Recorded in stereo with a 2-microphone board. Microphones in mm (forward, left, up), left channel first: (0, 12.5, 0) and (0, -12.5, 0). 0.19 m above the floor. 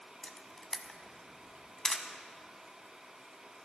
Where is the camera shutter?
30° left (ahead or behind), 1.0 m.